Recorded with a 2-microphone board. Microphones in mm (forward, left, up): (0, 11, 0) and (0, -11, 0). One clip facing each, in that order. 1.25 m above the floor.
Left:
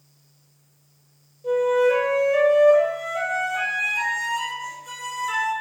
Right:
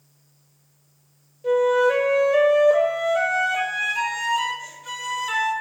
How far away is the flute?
About 4.5 m.